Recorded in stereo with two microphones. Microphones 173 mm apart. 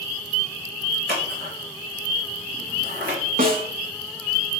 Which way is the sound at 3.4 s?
55° right (ahead or behind).